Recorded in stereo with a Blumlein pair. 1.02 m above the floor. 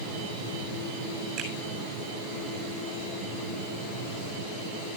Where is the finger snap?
35° right, 7.5 m.